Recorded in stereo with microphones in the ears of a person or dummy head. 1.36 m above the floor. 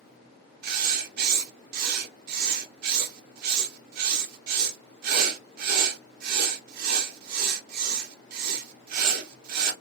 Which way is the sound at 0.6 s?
55° right (ahead or behind).